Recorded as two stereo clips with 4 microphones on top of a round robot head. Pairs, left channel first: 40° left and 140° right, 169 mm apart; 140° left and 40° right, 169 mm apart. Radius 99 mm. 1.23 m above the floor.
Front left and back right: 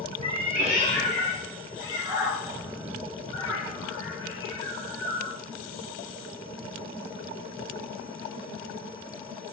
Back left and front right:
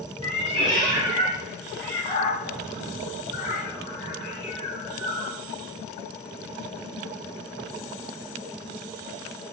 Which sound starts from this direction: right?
A cat meowing, at 0.2 s.